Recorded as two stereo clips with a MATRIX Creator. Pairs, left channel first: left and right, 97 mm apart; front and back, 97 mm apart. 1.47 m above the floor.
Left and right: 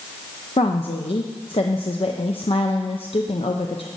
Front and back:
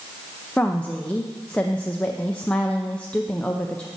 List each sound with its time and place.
0.6 s a woman speaking: 75° left, 0.7 m